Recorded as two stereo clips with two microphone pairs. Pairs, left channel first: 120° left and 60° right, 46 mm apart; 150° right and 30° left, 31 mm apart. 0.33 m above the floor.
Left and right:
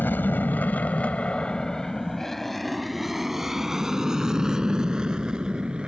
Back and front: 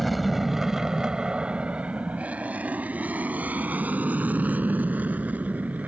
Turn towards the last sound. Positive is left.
turn(degrees=10)